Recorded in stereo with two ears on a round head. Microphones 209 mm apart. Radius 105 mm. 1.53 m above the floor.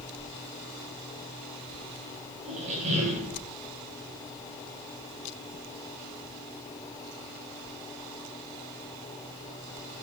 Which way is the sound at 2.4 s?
30° right (ahead or behind).